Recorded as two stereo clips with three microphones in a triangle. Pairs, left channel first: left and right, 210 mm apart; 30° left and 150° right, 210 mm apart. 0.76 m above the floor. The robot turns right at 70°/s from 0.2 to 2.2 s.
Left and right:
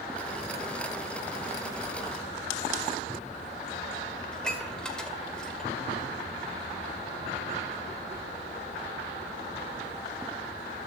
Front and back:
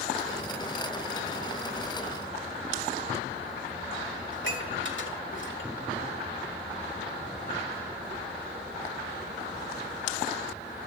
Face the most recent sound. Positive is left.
turn(degrees=5)